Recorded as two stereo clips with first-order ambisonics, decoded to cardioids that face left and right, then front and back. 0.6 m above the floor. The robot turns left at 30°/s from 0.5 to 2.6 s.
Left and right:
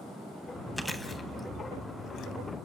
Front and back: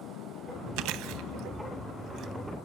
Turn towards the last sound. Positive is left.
turn(degrees=120)